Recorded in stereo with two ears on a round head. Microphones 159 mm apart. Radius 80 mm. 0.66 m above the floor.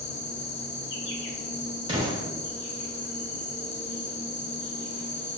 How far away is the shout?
I don't hear a shout.